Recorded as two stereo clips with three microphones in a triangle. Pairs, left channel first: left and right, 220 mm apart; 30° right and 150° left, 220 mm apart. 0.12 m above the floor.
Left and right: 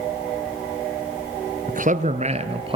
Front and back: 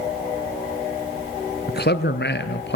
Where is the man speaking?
50° right, 2 m; by 2.8 s 30° right, 2 m.